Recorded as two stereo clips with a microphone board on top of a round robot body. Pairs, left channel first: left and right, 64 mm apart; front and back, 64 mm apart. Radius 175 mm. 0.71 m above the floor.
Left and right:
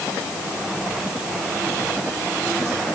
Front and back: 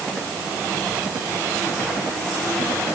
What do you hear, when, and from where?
Only background noise.